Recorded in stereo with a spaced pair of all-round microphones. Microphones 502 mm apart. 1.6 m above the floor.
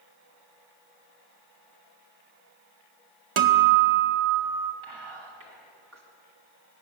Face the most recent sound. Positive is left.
turn(degrees=-75)  # may be behind; listen again after turning